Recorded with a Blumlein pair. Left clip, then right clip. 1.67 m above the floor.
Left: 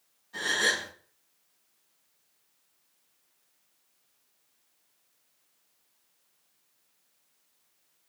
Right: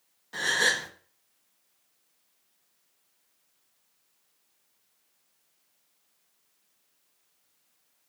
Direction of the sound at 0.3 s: 55° right.